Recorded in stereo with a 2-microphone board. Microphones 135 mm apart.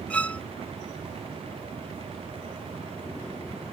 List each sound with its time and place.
0.1 s a violin: 10° left (ahead or behind)